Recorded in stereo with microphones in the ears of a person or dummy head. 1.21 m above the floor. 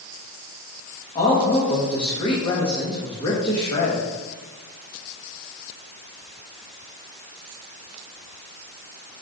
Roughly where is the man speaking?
Left.